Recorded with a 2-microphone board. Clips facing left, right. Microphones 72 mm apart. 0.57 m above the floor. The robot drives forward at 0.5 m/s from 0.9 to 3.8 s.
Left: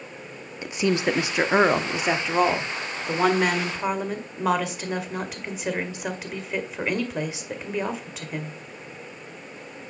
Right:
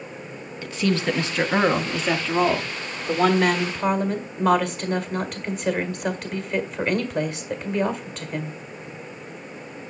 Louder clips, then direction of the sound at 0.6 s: Even; 20° left (ahead or behind).